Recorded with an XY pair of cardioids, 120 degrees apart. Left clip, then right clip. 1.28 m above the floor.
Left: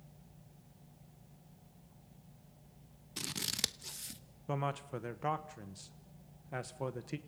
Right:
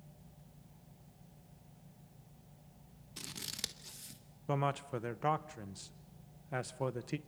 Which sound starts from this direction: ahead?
A man speaking, at 4.5 s.